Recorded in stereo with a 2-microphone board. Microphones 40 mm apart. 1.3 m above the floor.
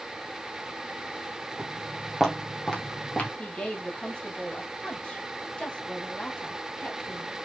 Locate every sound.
1.6 s footsteps: 25° right (ahead or behind), 1.5 m; by 3.3 s 40° left (ahead or behind), 1.6 m
3.4 s a woman speaking: 25° left (ahead or behind), 1.8 m